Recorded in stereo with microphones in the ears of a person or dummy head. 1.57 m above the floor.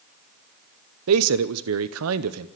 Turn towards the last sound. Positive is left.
turn(degrees=-80)